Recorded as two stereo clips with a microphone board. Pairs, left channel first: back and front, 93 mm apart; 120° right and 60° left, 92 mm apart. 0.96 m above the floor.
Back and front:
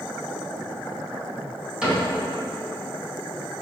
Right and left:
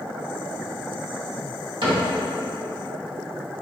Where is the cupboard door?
80° left, 1.6 m.